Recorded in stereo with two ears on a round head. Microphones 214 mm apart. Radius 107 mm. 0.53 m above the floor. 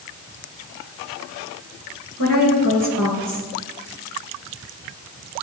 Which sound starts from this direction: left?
A woman speaking, at 2.2 s.